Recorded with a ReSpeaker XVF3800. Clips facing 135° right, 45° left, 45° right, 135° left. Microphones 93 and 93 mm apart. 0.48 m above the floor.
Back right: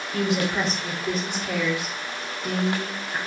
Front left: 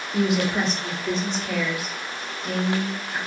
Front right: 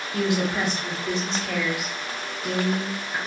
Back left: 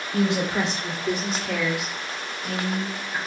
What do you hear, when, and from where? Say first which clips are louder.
0.1 s a woman speaking: front left 2 dB, back left 1 dB; 130° left, 1.1 m; by 3.2 s 90° right, 1.3 m